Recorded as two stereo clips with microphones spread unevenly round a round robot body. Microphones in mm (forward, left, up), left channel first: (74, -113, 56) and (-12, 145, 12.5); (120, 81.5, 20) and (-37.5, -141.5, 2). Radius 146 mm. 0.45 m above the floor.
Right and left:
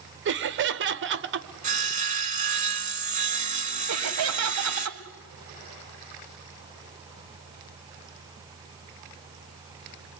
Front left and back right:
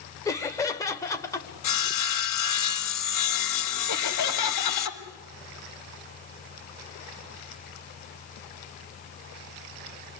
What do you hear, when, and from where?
0.2 s laughter: 135° left, 1.3 m
1.6 s sawing: 45° left, 2.5 m
3.9 s laughter: 85° left, 3 m